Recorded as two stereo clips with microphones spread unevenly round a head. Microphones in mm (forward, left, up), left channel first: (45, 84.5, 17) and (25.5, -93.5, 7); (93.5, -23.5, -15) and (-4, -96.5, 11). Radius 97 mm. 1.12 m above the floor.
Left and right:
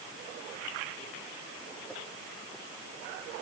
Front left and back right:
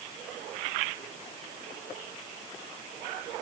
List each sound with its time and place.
Only background noise.